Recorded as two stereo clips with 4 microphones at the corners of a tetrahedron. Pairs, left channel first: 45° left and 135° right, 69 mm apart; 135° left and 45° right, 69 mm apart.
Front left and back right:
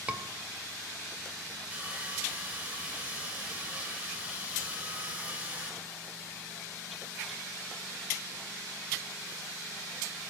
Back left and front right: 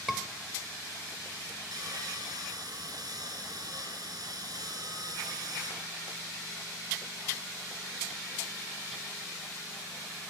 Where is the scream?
130° right, 1.4 m.